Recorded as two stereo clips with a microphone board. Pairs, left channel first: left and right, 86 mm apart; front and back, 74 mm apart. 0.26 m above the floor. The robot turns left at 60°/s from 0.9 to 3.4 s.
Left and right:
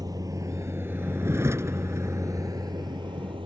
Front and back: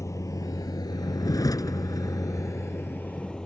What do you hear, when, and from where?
0.0 s a vehicle: 50° right; by 3.5 s 80° right